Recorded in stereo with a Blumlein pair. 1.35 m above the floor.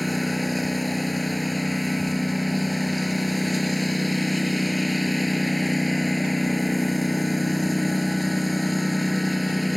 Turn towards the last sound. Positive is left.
turn(degrees=0)